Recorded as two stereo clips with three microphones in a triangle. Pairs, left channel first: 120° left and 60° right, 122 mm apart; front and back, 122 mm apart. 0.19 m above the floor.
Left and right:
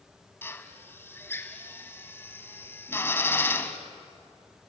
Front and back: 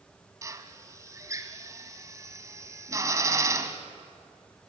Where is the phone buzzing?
No phone buzzing in this recording.